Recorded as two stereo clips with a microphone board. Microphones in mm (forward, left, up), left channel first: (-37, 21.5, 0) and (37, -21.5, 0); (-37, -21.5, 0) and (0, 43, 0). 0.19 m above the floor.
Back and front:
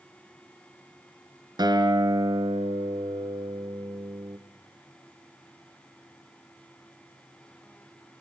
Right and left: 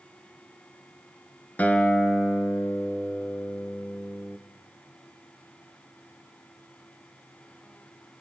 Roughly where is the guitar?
Ahead right.